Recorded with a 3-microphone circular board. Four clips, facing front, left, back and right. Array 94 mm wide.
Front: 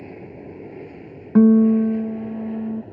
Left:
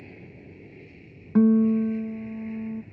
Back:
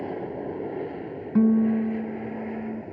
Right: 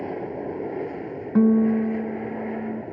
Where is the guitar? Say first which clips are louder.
Right 1 dB, front 7 dB; 15° right.